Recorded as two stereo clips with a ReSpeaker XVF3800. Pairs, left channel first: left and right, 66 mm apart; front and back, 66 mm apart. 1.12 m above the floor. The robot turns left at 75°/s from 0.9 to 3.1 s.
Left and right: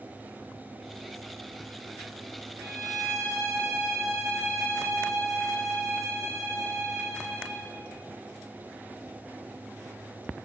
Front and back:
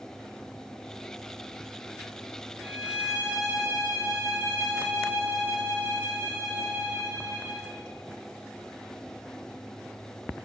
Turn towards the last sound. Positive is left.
turn(degrees=-120)